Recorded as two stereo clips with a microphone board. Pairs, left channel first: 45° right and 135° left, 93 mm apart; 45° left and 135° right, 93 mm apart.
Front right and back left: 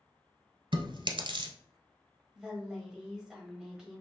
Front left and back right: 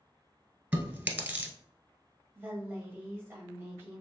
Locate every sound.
0.7 s chewing: 155° left, 1.0 m
2.4 s a woman speaking: 150° right, 1.2 m